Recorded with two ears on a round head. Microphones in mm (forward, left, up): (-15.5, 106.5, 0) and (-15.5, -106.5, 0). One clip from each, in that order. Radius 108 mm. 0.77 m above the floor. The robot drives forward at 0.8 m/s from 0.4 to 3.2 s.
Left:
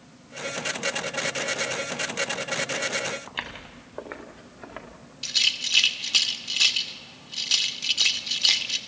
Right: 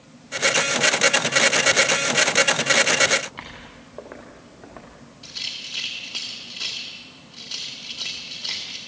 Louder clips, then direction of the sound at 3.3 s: Left 4 dB; 70° left (ahead or behind).